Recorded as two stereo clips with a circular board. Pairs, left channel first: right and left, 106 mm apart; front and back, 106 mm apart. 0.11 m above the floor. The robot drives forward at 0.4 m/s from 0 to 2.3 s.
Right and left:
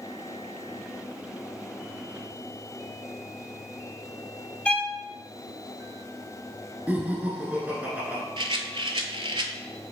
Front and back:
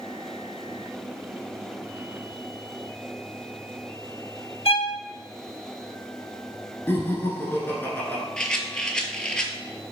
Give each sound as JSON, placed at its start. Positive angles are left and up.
{"t": 4.7, "sound": "a violin", "azimuth_deg": -10, "distance_m": 0.5}
{"t": 6.9, "sound": "laughter", "azimuth_deg": 35, "distance_m": 1.2}
{"t": 8.4, "sound": "a rattle", "azimuth_deg": 80, "distance_m": 0.6}